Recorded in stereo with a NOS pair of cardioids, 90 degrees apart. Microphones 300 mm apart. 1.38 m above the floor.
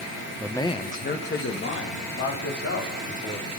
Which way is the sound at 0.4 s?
Straight ahead.